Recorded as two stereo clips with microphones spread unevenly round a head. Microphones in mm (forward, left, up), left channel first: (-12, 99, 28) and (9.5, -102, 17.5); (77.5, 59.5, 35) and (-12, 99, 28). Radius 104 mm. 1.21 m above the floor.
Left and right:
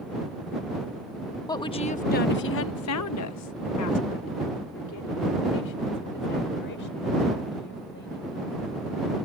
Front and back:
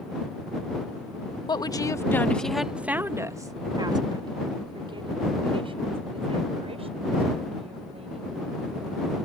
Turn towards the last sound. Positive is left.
turn(degrees=135)